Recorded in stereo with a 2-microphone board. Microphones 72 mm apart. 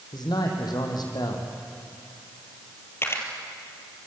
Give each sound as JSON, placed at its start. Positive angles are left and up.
{"t": 0.1, "sound": "a man speaking", "side_deg": 70, "distance_m": 5.5}
{"t": 3.0, "sound": "a camera shutter", "side_deg": 35, "distance_m": 3.5}